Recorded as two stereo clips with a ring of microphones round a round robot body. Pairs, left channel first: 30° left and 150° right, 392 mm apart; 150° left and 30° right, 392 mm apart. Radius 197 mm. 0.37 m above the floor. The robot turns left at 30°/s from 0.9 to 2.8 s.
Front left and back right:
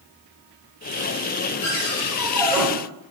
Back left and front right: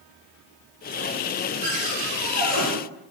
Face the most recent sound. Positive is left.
turn(degrees=-70)